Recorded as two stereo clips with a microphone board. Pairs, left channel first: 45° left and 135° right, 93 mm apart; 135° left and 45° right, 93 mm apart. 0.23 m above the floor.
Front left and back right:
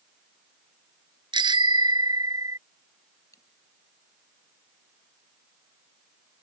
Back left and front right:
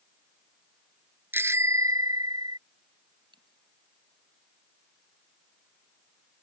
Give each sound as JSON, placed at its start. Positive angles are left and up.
{"t": 1.3, "sound": "a bicycle bell", "azimuth_deg": -110}
{"t": 3.3, "sound": "a dropped coin", "azimuth_deg": -10}